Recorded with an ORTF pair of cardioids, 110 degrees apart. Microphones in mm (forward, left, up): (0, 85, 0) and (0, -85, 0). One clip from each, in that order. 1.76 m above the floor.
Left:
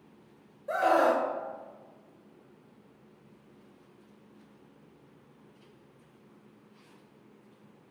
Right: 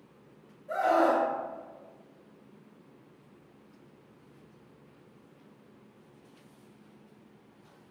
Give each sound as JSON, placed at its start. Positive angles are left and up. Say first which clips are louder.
{"t": 0.7, "sound": "a scream", "louder": "left 1 dB", "azimuth_deg": 65, "distance_m": 1.2}